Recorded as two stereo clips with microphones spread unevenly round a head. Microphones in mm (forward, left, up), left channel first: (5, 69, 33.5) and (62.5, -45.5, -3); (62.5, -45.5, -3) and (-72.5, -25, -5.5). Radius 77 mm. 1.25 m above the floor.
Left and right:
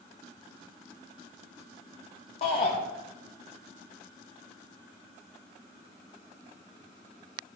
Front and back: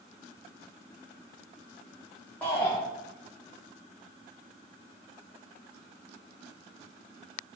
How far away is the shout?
About 1.2 m.